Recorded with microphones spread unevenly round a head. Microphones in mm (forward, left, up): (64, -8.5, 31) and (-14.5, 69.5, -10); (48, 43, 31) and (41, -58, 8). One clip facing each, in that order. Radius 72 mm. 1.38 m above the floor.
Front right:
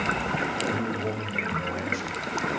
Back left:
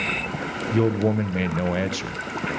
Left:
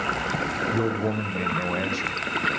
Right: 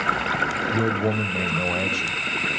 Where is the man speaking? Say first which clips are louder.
Back left 8 dB, right 1 dB; straight behind, 0.5 m.